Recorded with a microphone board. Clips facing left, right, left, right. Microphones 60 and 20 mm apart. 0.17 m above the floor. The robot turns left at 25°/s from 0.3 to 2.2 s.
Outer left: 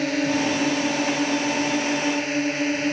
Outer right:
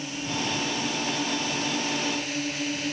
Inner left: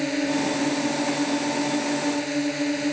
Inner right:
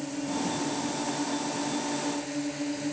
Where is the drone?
95° left; by 2.9 s 45° left.